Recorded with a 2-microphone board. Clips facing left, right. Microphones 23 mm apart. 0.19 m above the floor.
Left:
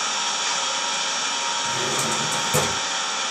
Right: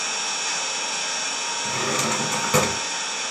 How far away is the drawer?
About 0.6 m.